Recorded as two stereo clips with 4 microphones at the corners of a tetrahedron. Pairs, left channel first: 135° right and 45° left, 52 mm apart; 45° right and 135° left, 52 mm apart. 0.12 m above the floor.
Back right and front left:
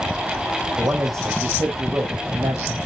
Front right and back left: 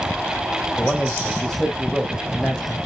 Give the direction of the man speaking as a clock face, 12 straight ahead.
11 o'clock.